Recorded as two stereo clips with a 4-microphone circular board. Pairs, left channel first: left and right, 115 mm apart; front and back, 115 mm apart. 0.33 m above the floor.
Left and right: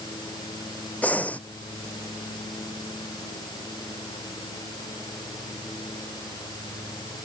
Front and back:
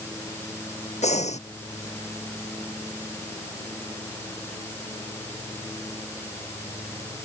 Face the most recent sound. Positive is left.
turn(degrees=15)